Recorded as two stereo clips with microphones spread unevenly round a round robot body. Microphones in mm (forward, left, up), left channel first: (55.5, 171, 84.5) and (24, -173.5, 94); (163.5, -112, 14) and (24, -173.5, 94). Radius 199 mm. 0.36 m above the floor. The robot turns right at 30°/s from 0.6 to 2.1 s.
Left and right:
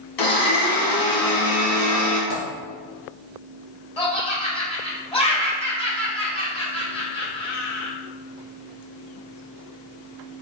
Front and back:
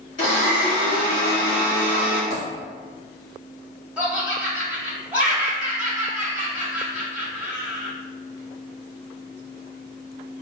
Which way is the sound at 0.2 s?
60° left.